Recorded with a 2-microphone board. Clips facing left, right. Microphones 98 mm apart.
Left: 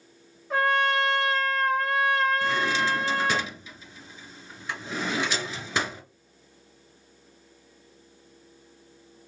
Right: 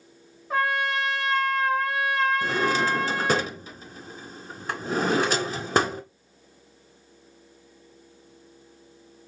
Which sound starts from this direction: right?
A drawer, at 2.4 s.